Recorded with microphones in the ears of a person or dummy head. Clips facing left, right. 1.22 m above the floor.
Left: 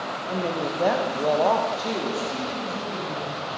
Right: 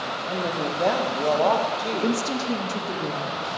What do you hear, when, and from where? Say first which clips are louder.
0.3 s a woman speaking: left 1 dB; centre (ahead or behind), 1.1 m
1.9 s a woman speaking: right 3 dB; 70° right (ahead or behind), 1.7 m